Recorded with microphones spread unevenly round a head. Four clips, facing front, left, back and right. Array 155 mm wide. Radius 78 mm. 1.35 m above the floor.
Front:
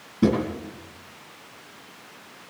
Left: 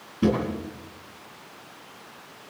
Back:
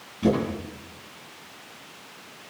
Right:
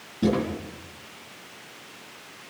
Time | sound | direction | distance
0.2 | a drawer | 5° right | 10 m